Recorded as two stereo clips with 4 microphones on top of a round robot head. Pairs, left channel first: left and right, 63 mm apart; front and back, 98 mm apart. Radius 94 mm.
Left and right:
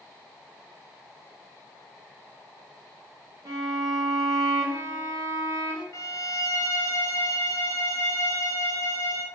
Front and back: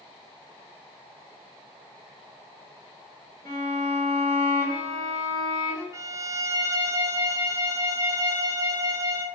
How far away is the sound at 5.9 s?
About 0.5 m.